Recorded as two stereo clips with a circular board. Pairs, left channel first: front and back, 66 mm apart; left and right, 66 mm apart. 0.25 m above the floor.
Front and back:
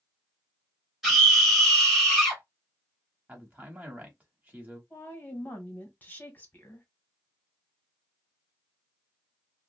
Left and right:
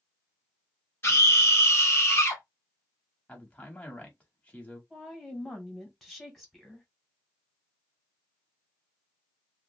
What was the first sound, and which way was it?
A scream, 95° left.